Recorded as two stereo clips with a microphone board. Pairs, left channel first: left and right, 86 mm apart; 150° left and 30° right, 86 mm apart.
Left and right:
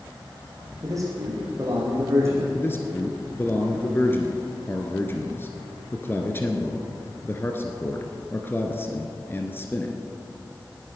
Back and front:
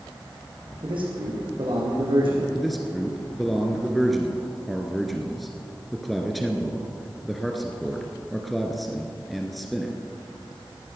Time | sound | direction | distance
0.8 | a man speaking | 40° right | 4.5 m
2.5 | a man speaking | 60° left | 1.6 m